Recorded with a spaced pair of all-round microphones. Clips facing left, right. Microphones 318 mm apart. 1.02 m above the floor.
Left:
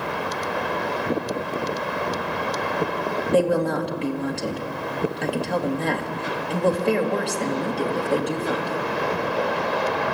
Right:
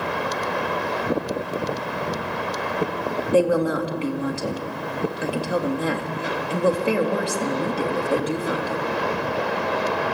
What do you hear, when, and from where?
3.3 s a woman speaking: 5° right (ahead or behind), 1.8 m